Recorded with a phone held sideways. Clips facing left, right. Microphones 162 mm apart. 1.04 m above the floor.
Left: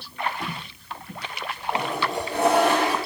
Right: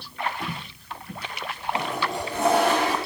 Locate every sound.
1.7 s a toilet flushing: 75° left (ahead or behind), 4 m